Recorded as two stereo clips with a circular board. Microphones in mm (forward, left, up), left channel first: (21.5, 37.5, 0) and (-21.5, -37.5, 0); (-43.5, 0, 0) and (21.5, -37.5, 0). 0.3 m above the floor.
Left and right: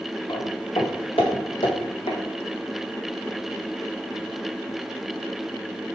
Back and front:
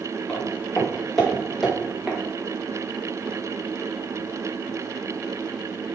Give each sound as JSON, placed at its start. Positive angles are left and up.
{"t": 0.3, "sound": "footsteps", "azimuth_deg": 75, "distance_m": 4.5}